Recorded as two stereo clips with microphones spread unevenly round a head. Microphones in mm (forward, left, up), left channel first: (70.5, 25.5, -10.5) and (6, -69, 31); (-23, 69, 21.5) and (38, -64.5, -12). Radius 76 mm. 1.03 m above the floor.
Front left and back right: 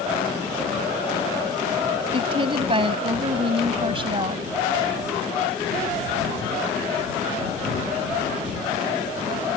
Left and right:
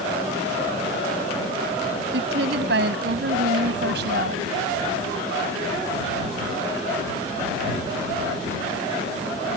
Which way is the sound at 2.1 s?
85° right.